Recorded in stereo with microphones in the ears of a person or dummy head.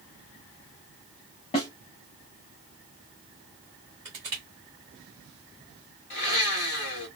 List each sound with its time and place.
1.5 s a snare drum: 35° left (ahead or behind), 1.5 m
4.0 s crushing: 15° right (ahead or behind), 1.3 m
6.1 s a blender: 45° left (ahead or behind), 1.6 m